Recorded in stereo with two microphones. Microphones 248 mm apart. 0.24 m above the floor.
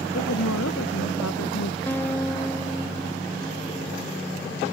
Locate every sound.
0.1 s a woman speaking: 85° left; by 1.8 s 80° left
1.9 s a guitar: 10° left (ahead or behind)